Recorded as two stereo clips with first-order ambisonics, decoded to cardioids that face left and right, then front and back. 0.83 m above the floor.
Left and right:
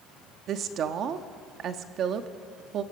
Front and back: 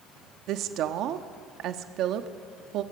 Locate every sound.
0.5 s a woman speaking: 140° right, 1.2 m